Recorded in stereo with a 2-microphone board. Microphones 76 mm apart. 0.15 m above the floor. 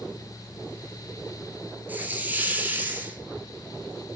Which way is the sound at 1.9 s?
20° right (ahead or behind).